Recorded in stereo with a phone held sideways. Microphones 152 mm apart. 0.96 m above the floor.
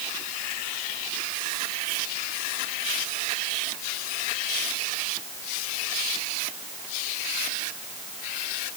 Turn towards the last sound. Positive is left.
No sound to turn to.